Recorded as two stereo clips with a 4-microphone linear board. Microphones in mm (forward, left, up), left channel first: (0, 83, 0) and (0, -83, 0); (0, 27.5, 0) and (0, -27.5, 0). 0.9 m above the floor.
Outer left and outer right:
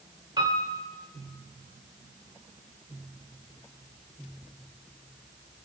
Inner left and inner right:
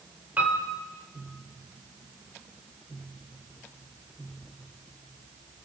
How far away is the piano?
About 2.5 m.